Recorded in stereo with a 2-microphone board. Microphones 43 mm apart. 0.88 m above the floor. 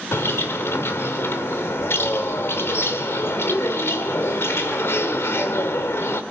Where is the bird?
80° left, 1.6 m.